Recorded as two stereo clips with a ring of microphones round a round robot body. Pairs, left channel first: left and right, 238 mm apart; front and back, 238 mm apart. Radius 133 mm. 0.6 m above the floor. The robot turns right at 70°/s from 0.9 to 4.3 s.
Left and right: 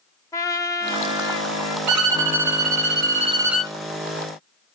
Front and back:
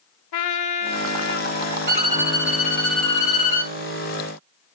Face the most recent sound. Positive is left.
turn(degrees=50)